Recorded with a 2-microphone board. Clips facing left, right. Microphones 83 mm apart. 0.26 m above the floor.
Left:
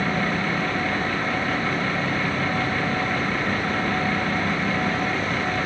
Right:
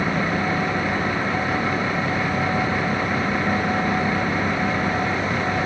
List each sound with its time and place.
Only background noise.